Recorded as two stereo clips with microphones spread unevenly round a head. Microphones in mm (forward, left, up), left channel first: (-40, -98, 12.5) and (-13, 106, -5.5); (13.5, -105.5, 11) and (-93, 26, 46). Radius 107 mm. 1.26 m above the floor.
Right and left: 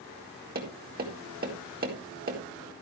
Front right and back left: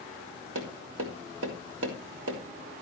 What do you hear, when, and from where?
0.6 s tapping: 125° left, 4 m